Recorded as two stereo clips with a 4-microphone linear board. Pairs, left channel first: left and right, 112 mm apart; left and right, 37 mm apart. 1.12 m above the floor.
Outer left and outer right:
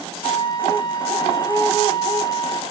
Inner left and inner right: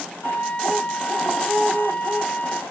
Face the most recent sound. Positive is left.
turn(degrees=40)  # may be behind; listen again after turning